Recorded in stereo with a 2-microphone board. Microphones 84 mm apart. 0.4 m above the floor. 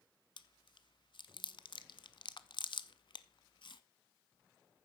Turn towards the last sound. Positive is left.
turn(degrees=70)  # may be behind; listen again after turning